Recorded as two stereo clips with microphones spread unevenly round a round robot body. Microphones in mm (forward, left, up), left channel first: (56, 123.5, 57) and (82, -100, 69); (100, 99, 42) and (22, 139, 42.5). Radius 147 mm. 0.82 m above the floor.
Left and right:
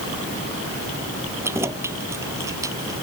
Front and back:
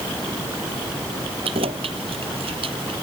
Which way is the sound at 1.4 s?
165° right.